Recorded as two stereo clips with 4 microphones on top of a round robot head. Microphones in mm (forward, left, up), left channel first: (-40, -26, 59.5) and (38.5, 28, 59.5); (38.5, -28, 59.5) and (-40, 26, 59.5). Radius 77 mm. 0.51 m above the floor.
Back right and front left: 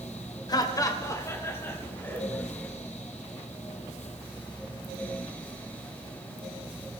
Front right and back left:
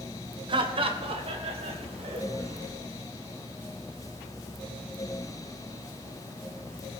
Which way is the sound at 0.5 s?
175° left.